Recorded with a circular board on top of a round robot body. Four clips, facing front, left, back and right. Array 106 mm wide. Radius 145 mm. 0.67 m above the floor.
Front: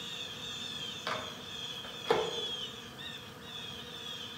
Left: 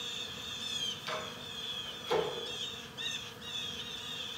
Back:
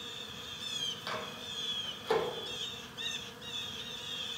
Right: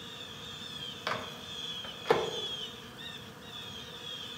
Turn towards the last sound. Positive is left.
turn(degrees=-75)